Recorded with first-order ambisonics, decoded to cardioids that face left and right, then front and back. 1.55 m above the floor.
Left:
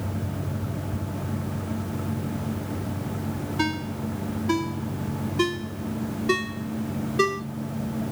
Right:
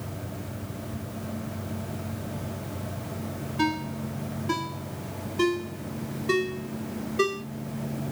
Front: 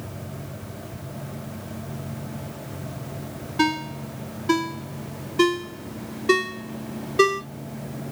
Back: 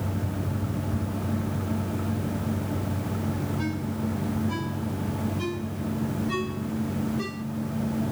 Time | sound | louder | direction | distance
3.6 | a ringtone | right 1 dB, front 8 dB | 10° left | 2 m